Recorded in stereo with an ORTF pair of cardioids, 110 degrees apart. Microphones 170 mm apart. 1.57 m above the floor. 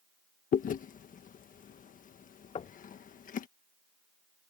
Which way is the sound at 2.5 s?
35° left.